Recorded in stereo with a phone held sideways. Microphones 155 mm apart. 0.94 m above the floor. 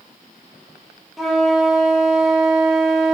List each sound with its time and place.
1.2 s a flute: centre (ahead or behind), 1.4 m